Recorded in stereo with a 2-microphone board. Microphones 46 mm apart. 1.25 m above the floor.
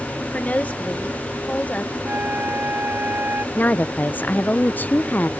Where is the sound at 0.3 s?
30° left (ahead or behind).